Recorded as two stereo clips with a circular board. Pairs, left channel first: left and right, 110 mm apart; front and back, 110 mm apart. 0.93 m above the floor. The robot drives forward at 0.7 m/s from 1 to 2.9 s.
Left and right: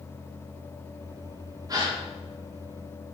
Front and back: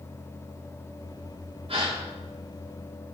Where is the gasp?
145° right, 3.5 m; by 2.0 s 150° right, 3.5 m.